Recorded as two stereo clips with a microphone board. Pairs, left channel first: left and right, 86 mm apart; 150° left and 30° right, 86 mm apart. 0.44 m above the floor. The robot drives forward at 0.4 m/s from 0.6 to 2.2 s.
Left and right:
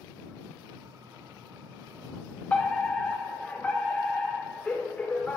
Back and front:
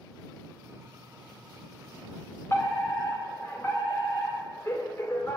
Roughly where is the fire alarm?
Behind left.